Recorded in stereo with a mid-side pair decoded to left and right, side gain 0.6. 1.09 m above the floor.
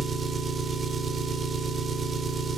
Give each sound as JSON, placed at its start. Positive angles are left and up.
{"t": 0.0, "sound": "an engine running", "azimuth_deg": -30, "distance_m": 2.0}